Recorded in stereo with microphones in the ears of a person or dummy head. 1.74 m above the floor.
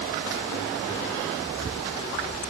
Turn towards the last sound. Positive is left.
No sound to turn to.